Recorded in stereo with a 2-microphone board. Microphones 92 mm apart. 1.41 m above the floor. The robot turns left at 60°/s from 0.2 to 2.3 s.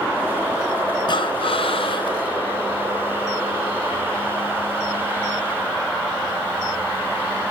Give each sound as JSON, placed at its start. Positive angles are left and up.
{"t": 1.1, "sound": "breathing", "azimuth_deg": 125, "distance_m": 0.5}